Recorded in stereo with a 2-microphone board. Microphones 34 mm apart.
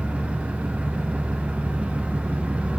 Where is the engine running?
45° right (ahead or behind), 1.5 m.